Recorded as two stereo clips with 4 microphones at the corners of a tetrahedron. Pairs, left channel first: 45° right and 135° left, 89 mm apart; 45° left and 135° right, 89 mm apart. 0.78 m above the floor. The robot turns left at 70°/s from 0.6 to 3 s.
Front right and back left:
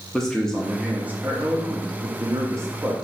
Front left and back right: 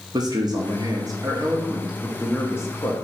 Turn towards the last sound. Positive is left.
turn(degrees=65)